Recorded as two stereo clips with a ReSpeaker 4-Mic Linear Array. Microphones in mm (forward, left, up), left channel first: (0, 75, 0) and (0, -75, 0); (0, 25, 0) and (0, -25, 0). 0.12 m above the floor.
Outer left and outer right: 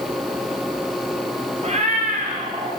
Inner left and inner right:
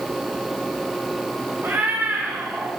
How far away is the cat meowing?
About 2.5 m.